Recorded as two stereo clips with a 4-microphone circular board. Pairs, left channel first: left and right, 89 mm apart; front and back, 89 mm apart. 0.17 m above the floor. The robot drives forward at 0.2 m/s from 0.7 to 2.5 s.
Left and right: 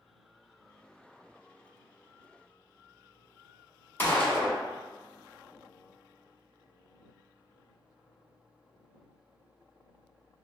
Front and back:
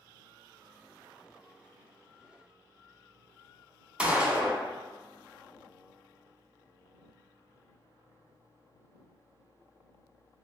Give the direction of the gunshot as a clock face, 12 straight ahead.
8 o'clock.